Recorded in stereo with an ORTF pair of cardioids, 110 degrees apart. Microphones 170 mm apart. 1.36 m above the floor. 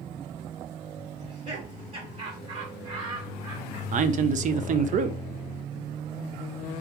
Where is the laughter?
45° right, 2 m.